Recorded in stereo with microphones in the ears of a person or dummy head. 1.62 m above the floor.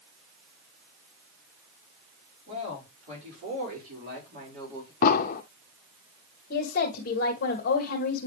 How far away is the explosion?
About 0.9 m.